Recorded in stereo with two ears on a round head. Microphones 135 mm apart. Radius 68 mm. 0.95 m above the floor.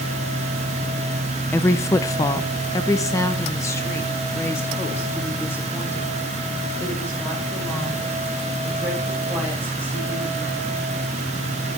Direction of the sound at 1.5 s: 15° left (ahead or behind).